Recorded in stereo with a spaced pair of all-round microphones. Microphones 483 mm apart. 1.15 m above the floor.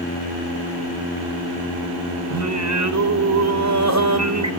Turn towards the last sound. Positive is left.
turn(degrees=-35)  # may be behind; listen again after turning